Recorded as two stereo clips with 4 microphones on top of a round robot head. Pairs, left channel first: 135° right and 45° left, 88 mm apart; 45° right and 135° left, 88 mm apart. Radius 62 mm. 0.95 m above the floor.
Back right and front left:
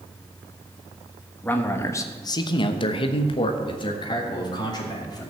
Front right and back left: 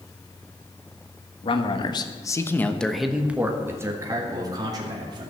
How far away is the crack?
No crack in this recording.